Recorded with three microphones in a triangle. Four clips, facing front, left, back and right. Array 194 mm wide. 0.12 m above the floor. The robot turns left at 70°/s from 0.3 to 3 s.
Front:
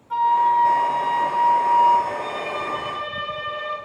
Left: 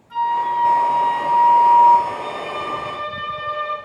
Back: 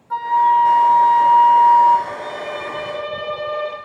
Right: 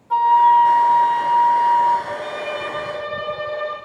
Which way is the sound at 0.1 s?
100° right.